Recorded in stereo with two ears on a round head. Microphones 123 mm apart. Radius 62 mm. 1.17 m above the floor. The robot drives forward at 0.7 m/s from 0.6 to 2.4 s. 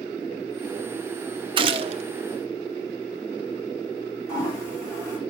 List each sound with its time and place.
1.6 s a gunshot: 35° right (ahead or behind), 0.7 m; by 2.0 s 50° right (ahead or behind), 0.6 m
4.3 s a toilet flushing: 25° left (ahead or behind), 7 m